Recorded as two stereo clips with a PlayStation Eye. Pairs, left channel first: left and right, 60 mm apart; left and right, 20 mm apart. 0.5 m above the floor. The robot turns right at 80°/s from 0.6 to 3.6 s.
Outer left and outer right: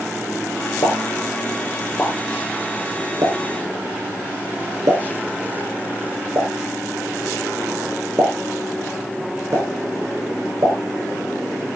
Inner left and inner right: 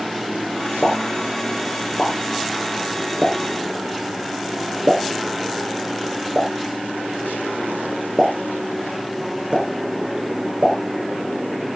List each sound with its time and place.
0.8 s a pop: 75° left (ahead or behind), 3.5 m; by 10.8 s 60° right (ahead or behind), 3.5 m